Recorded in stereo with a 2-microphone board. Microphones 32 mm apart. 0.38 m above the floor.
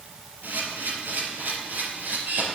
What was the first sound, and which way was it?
A camera shutter, 85° right.